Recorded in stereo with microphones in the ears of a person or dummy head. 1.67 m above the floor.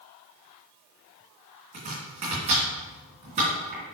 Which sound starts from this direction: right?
Chopping, at 1.7 s.